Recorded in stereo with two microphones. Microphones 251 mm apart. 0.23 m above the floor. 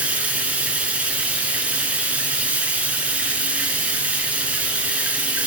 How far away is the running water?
About 1.0 m.